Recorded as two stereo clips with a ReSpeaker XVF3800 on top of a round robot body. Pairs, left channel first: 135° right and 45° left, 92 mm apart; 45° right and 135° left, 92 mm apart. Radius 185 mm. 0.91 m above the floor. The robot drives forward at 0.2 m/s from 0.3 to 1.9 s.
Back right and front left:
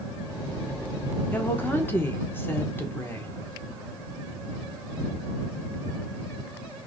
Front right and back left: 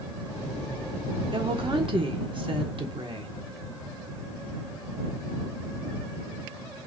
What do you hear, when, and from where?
1.3 s a woman speaking: 155° left, 1.0 m; by 3.3 s 160° left, 1.1 m